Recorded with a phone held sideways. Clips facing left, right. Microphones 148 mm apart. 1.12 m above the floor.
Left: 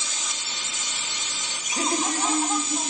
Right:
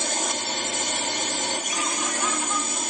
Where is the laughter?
35° left (ahead or behind).